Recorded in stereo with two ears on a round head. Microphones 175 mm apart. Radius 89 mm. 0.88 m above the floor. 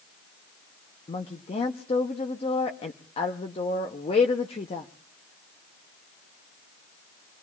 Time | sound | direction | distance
1.1 | a woman speaking | 30° left (ahead or behind) | 0.8 m